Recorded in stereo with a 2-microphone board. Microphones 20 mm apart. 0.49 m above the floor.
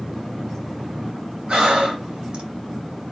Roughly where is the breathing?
Right.